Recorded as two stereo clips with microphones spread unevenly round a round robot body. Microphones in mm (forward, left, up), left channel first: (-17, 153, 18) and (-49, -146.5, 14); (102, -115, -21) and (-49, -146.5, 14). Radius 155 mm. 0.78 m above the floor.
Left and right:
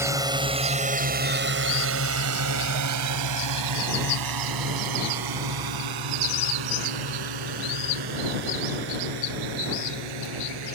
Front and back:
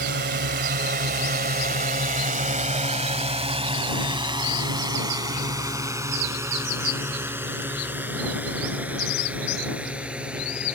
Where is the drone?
175° right; by 10.8 s 85° right.